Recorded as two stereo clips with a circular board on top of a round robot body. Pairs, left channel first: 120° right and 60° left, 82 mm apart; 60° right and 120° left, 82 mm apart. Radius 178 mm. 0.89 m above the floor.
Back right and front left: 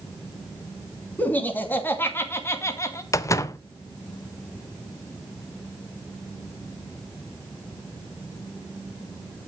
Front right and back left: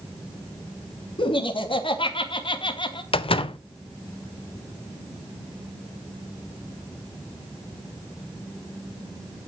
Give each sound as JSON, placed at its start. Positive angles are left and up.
{"t": 1.2, "sound": "laughter", "azimuth_deg": -50, "distance_m": 3.0}
{"t": 3.1, "sound": "a door slam", "azimuth_deg": -65, "distance_m": 0.8}